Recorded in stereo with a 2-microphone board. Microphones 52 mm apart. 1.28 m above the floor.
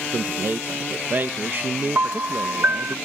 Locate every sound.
0.1 s a man speaking: 40° right (ahead or behind)
1.9 s a piano: 50° right (ahead or behind)